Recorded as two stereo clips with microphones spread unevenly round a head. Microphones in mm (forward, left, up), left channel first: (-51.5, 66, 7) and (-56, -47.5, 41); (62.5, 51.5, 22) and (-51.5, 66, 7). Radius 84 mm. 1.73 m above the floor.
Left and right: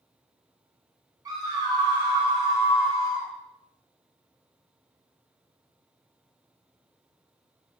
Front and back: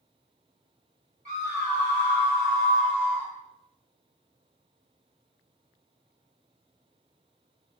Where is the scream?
145° right, 1.5 m; by 3.3 s 100° right, 0.7 m.